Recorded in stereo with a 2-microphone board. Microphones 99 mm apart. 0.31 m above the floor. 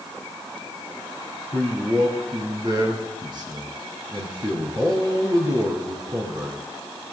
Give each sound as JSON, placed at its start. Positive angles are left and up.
{"t": 1.5, "sound": "a man speaking", "side_deg": -45, "distance_m": 3.0}